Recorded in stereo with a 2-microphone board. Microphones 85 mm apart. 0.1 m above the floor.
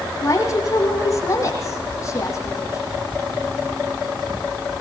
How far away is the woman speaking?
About 5.5 m.